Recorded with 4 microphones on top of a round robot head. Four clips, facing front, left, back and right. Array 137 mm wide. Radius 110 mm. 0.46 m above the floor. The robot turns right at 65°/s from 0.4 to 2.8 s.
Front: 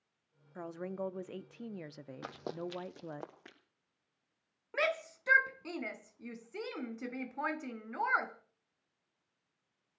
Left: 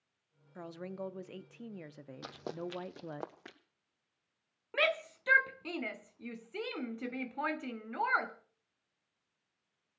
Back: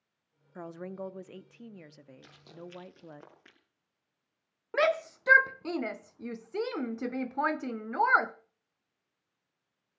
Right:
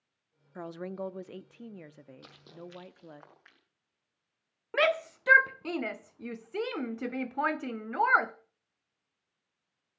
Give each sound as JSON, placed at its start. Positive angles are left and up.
{"t": 0.6, "sound": "a woman speaking", "azimuth_deg": -95, "distance_m": 0.8}
{"t": 2.2, "sound": "running footsteps", "azimuth_deg": 15, "distance_m": 1.4}
{"t": 4.7, "sound": "a shout", "azimuth_deg": -135, "distance_m": 0.9}